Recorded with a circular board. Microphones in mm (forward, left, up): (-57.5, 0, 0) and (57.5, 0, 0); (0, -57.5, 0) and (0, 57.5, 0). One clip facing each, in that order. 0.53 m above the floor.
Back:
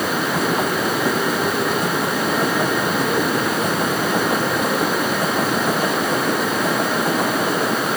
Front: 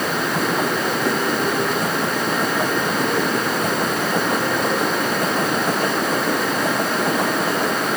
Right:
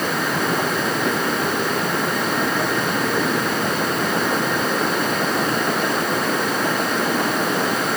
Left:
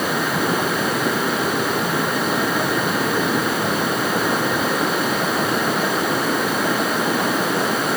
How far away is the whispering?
I don't hear whispering.